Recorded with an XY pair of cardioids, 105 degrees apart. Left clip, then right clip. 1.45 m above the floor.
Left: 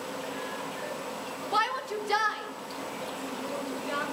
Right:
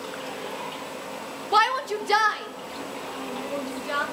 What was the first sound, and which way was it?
A shout, 45° right.